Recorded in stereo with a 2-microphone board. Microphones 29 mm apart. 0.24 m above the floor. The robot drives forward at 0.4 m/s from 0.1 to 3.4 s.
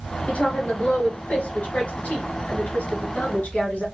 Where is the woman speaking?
55° left (ahead or behind), 3 m; by 3.9 s 70° left (ahead or behind), 3 m.